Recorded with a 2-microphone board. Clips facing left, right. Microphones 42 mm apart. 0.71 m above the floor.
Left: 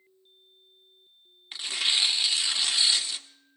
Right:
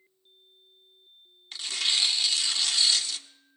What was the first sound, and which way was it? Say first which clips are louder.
Tearing paper: left 1 dB; 20° left (ahead or behind).